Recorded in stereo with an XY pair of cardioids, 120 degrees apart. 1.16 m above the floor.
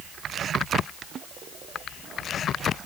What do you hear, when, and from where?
Only background noise.